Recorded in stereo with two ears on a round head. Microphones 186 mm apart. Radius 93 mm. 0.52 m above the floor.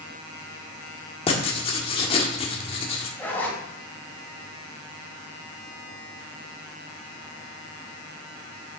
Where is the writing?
25° left (ahead or behind), 1.6 m.